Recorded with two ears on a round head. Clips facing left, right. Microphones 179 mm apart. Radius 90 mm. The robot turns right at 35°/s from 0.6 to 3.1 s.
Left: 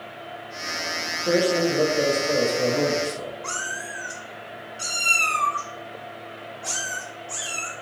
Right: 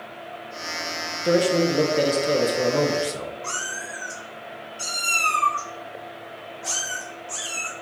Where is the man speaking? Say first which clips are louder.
Right 1 dB; 155° right, 0.9 m; by 3.3 s 90° right, 0.9 m.